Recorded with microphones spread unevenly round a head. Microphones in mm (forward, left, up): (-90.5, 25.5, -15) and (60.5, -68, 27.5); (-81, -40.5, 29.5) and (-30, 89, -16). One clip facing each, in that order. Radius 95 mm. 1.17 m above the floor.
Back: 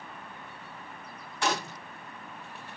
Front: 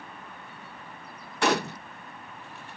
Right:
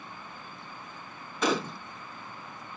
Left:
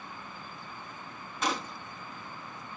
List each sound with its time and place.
1.4 s a gunshot: 70° right